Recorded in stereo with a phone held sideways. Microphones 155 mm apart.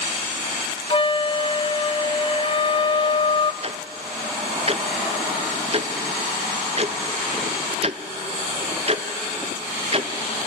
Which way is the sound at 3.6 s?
40° right (ahead or behind).